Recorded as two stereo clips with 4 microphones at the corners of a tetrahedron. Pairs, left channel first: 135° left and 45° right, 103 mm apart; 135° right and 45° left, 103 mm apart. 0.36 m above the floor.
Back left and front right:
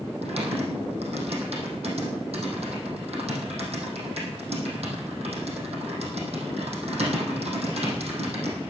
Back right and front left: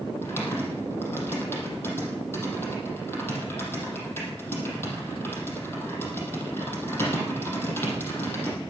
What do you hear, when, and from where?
0.2 s typing on a keyboard: 65° right, 4 m